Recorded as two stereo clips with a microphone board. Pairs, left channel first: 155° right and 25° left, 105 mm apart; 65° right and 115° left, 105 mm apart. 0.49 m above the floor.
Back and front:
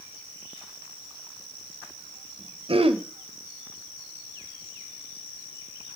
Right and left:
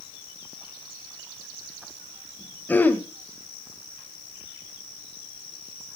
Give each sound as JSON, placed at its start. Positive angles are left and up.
{"t": 2.7, "sound": "throat clearing", "azimuth_deg": 5, "distance_m": 1.3}